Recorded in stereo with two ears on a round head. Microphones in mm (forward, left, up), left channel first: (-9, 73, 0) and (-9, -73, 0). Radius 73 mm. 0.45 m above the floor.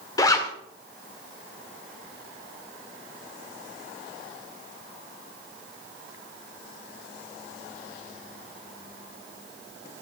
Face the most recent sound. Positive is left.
turn(degrees=20)  # may be behind; listen again after turning